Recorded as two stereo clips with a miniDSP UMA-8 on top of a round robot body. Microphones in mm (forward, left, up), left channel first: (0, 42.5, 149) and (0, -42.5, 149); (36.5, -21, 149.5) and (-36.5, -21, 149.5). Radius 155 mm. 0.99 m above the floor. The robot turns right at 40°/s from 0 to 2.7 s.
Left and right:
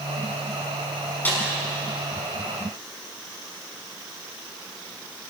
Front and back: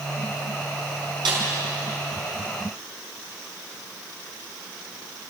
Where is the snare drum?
160° left, 5.5 m; by 1.4 s 165° left, 5.5 m.